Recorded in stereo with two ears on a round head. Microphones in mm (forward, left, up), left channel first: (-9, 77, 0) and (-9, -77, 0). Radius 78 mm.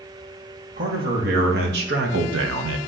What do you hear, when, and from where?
0.8 s a man speaking: 50° right (ahead or behind), 2 m; by 2.8 s 90° right, 0.8 m